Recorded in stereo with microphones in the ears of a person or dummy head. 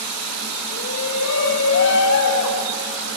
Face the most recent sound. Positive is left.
turn(degrees=80)